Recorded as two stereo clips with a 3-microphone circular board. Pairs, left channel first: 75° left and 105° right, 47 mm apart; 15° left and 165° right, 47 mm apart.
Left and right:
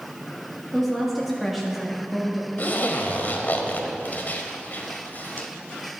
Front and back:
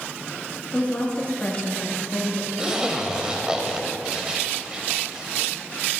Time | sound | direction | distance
0.7 | a woman speaking | 20° right | 1.4 m
2.6 | a zipper | 120° left | 1.1 m